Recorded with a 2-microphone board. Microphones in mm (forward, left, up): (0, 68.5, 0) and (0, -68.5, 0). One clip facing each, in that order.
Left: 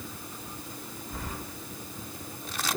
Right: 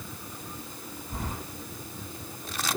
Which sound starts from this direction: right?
Keys jangling, at 1.1 s.